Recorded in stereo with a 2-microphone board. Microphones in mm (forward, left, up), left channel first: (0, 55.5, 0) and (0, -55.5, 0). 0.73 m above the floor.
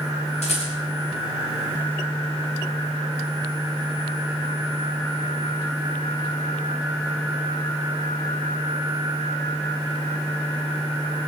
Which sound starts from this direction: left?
A rattle, at 0.4 s.